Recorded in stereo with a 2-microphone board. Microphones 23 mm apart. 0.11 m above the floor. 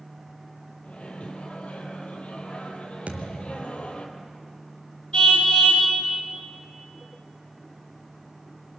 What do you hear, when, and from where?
0.8 s a microwave: 65° left (ahead or behind), 3 m
3.1 s a thud: 65° right (ahead or behind), 3 m
5.1 s a car horn: 40° left (ahead or behind), 9 m